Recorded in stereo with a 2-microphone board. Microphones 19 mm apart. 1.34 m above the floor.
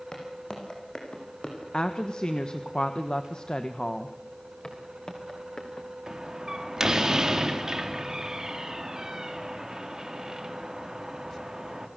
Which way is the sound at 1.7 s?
50° left (ahead or behind).